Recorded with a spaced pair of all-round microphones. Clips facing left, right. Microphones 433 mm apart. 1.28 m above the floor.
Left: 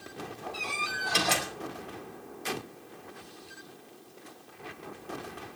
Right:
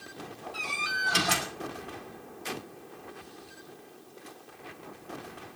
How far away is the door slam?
About 4.5 m.